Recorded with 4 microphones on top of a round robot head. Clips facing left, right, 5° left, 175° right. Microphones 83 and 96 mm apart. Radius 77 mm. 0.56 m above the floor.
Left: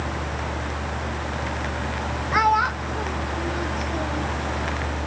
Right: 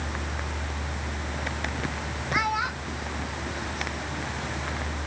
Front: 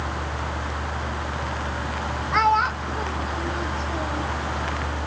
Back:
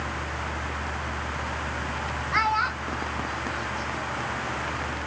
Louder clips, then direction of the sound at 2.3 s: Left 8 dB, front 6 dB; 55° left.